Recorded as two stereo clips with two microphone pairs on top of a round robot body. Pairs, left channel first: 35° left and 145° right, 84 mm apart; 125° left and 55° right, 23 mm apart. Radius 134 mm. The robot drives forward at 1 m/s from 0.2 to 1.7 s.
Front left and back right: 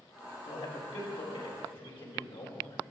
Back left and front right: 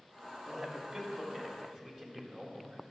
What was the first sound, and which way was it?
A man speaking, 35° left.